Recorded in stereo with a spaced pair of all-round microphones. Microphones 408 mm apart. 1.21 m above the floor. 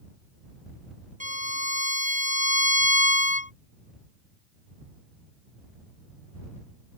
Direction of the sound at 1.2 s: 20° right (ahead or behind).